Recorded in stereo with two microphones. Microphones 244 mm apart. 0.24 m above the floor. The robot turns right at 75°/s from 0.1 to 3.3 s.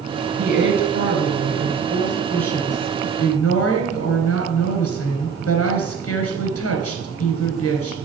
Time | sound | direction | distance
0.4 | a woman speaking | 145° right | 3 m